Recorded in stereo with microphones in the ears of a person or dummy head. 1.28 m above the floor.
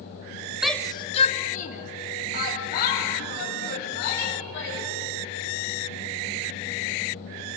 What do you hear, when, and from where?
0.6 s a shout: 5° right (ahead or behind), 0.7 m; by 4.9 s 55° left (ahead or behind), 7 m